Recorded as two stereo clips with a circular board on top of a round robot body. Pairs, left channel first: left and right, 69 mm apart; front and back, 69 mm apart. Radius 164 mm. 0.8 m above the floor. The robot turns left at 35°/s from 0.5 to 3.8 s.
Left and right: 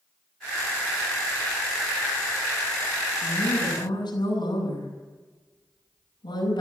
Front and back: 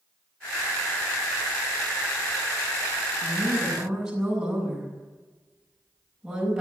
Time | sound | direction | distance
3.2 | a woman speaking | 115° left | 7.5 m